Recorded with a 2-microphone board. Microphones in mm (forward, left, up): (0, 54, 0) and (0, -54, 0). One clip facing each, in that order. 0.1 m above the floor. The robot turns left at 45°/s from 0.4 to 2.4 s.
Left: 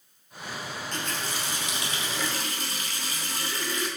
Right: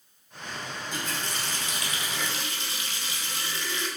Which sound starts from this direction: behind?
A running tap, at 0.7 s.